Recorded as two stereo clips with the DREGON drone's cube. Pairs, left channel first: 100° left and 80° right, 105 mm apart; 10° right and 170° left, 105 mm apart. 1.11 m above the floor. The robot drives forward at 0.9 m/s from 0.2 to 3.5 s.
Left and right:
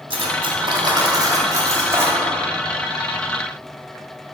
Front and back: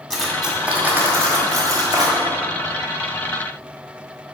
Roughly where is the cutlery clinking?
Right.